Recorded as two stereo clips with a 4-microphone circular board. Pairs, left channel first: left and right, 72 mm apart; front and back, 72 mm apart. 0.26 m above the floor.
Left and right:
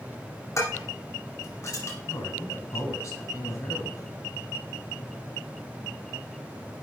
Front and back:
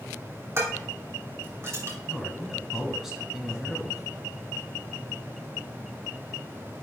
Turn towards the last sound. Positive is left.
turn(degrees=100)